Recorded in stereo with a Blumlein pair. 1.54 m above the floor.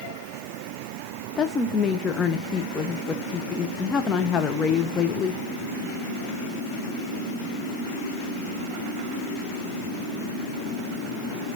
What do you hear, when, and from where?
1.4 s a woman speaking: 20° left, 0.9 m